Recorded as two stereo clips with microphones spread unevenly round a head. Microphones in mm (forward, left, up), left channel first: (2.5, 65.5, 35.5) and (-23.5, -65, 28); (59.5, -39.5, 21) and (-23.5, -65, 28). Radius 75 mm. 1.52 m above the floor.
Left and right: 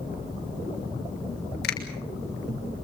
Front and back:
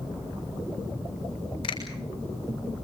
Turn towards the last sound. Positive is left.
turn(degrees=70)